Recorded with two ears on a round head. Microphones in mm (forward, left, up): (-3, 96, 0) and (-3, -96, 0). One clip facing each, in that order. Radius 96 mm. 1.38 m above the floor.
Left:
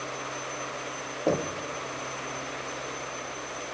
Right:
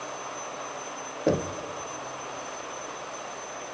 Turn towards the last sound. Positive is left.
turn(degrees=-15)  # may be behind; listen again after turning